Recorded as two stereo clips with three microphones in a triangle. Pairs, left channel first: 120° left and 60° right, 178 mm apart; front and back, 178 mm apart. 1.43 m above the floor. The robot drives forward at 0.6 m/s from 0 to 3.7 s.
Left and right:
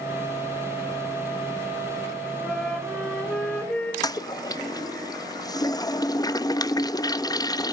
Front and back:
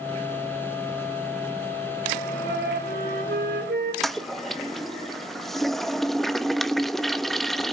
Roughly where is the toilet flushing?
Left.